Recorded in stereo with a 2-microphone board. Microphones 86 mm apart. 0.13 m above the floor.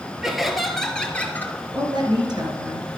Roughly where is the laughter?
Centre.